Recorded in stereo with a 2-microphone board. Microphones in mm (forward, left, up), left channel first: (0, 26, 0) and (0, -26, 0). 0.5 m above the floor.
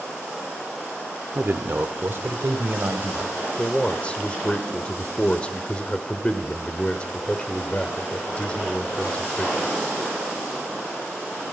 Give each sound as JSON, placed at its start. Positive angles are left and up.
{"t": 1.4, "sound": "a man speaking", "side_deg": -40, "distance_m": 1.2}
{"t": 3.6, "sound": "a man speaking", "side_deg": 25, "distance_m": 1.4}